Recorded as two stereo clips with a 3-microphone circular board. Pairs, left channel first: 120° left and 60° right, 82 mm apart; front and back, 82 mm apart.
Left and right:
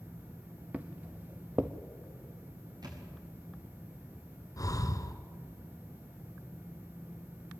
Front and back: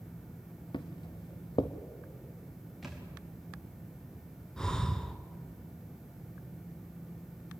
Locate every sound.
0.7 s footsteps: 10° left, 1.3 m
2.8 s a thud: 90° right, 5 m
4.6 s breathing: 80° left, 1.1 m